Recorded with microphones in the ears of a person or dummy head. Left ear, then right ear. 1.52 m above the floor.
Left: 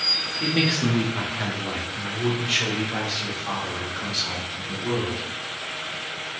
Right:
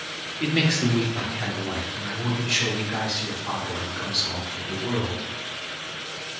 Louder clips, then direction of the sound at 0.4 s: Left 1 dB; 5° right (ahead or behind).